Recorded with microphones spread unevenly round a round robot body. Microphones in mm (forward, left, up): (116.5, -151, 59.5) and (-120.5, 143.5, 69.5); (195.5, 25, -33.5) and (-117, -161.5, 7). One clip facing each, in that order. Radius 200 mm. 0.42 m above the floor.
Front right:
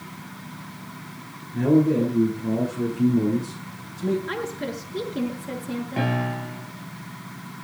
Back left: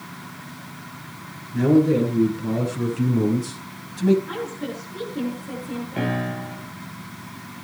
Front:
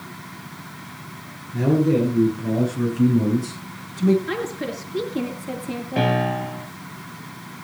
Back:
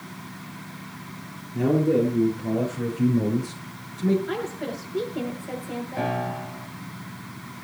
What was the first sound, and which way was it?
A man speaking, 65° left.